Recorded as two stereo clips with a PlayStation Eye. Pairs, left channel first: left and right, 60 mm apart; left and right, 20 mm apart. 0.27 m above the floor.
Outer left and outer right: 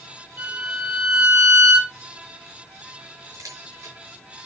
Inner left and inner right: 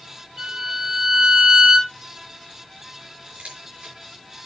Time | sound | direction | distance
0.4 | a violin | 30° right (ahead or behind) | 5 m
3.3 | a camera shutter | 65° right (ahead or behind) | 5 m